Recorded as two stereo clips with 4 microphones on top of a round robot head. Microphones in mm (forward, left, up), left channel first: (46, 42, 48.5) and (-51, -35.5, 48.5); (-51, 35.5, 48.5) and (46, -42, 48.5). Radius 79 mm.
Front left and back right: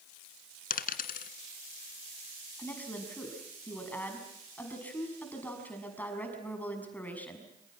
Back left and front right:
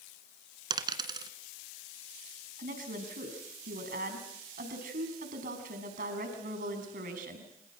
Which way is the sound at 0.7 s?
20° left.